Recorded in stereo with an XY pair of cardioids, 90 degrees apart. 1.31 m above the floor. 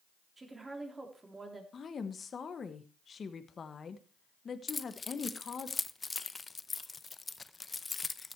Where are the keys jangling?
30° left, 0.7 m.